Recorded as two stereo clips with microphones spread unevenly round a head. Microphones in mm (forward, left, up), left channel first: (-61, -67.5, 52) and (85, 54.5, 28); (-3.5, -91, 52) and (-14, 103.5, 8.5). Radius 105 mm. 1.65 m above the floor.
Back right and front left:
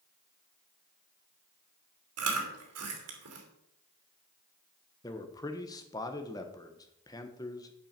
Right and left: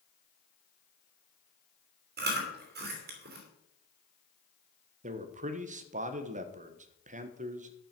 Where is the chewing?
45° left, 2.5 m.